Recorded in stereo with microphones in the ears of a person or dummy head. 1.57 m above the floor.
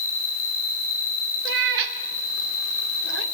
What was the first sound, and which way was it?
An insect, 45° left (ahead or behind).